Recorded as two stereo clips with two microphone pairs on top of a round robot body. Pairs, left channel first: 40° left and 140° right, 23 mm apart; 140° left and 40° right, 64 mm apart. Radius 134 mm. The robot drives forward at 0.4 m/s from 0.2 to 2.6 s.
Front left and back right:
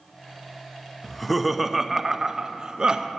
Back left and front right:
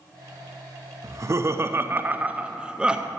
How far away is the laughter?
About 0.9 m.